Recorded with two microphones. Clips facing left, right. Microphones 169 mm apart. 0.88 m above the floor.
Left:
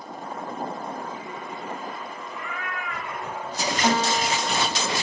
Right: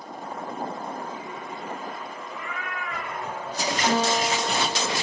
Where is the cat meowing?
5° right (ahead or behind), 5.5 m; by 3.7 s 15° left (ahead or behind), 5 m.